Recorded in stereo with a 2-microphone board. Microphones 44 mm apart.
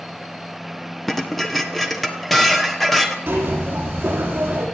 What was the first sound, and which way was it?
Dishes clattering, 5° left (ahead or behind).